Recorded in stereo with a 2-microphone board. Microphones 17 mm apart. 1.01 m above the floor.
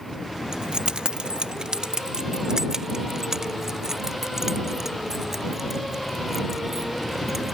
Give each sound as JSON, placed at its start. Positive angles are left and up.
{"t": 0.5, "sound": "keys jangling", "side_deg": -60}